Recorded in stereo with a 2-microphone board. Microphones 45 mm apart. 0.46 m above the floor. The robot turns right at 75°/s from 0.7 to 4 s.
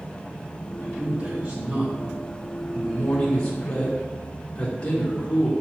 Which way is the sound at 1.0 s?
20° right (ahead or behind).